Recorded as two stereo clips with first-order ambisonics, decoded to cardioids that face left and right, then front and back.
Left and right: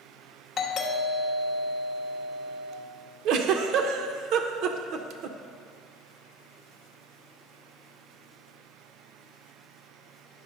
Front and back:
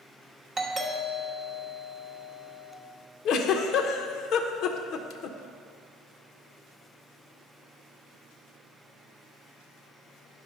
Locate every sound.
0.6 s a doorbell: 120° left, 1.0 m
3.2 s a giggle: 50° right, 0.6 m